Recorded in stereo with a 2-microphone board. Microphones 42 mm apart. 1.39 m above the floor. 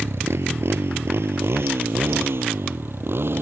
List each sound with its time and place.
0.0 s a motorcycle: 85° right; by 3.4 s 65° right (ahead or behind)